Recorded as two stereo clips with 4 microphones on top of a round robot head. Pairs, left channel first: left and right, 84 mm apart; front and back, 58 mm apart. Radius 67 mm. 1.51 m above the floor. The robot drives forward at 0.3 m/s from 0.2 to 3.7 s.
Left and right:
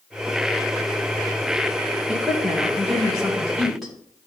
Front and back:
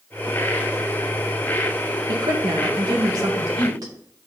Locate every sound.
2.1 s a woman speaking: 175° right, 1.4 m; by 3.9 s straight behind, 1.9 m